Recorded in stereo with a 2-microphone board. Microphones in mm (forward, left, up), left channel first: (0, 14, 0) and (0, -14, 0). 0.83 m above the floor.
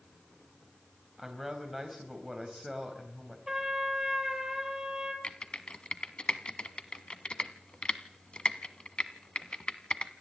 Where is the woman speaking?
5° right (ahead or behind), 4 m.